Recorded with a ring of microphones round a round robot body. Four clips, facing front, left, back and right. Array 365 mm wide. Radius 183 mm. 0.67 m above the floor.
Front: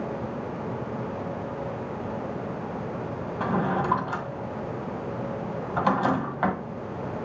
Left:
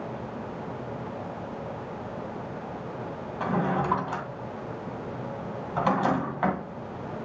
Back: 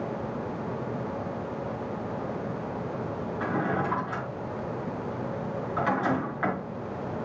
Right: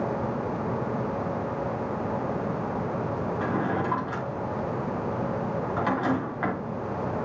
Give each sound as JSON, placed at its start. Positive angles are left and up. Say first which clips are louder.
{"t": 3.4, "sound": "a drawer", "louder": "left 3 dB, front 3 dB", "azimuth_deg": 30, "distance_m": 2.0}